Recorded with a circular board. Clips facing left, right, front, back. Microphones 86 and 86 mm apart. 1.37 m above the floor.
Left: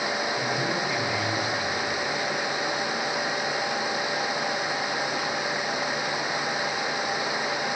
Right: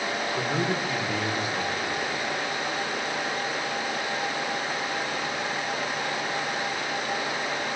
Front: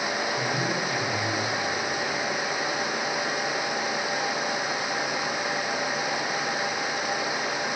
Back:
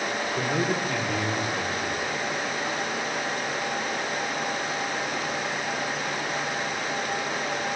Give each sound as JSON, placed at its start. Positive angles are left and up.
{"t": 0.4, "sound": "a man speaking", "azimuth_deg": -145, "distance_m": 4.0}